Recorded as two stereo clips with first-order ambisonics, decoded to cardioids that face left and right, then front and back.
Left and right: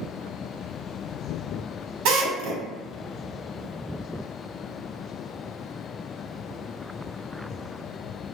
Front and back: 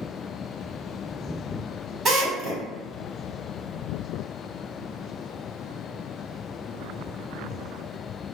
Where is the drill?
110° right, 1.3 m.